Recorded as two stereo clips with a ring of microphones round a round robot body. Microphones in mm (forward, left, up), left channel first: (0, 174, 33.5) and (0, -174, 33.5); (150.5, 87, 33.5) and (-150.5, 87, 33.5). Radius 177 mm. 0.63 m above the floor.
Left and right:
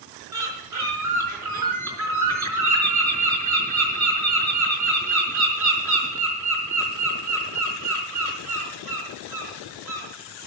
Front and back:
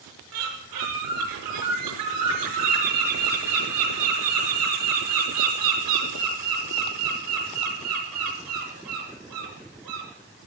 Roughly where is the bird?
Behind right.